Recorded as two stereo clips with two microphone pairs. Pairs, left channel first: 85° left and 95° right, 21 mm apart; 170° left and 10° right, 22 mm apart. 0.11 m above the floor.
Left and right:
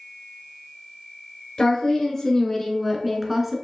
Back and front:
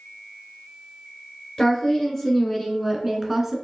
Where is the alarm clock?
No alarm clock in this recording.